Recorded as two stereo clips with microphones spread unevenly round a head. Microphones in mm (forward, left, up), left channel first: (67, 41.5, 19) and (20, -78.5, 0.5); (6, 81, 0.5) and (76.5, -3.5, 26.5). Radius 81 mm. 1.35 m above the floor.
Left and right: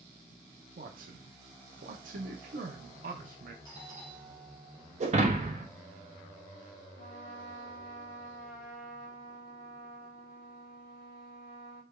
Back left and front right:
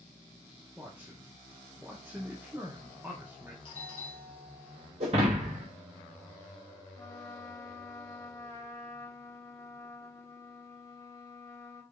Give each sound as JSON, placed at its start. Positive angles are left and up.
{"t": 0.8, "sound": "a man speaking", "azimuth_deg": -135, "distance_m": 0.7}
{"t": 3.6, "sound": "a doorbell", "azimuth_deg": 135, "distance_m": 1.7}
{"t": 5.0, "sound": "breaking glass", "azimuth_deg": -75, "distance_m": 1.1}
{"t": 7.0, "sound": "a trumpet", "azimuth_deg": 70, "distance_m": 1.3}